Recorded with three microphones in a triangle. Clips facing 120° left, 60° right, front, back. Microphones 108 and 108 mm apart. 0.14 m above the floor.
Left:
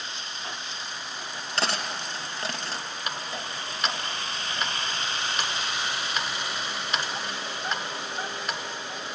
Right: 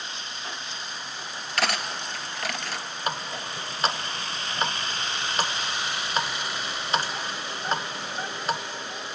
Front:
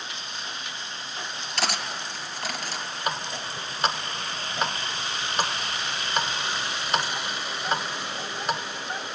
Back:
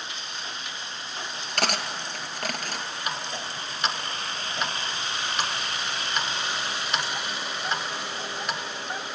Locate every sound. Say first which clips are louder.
1.6 s cutlery clinking: right 1 dB, back 2 dB; 175° left, 1.7 m
3.1 s a running tap: right 5 dB, front 4 dB; 25° right, 1.0 m